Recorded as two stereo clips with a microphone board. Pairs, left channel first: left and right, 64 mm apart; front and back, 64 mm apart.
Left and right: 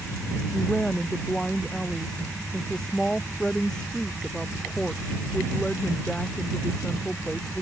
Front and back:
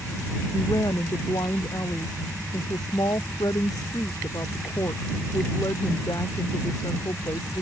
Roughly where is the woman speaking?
Ahead.